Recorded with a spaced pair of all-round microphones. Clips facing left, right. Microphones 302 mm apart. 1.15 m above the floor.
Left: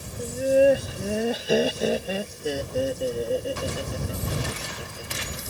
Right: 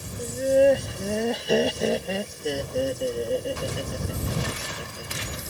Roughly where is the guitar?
No guitar in this recording.